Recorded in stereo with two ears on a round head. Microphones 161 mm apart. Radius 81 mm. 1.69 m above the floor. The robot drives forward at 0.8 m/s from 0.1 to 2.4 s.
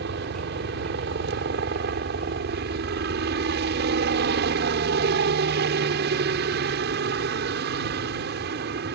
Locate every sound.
0.0 s a helicopter: 70° right (ahead or behind); by 9.0 s 65° right (ahead or behind)